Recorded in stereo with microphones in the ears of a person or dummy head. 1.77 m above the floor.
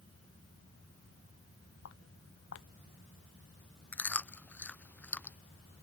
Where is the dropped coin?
No dropped coin in this recording.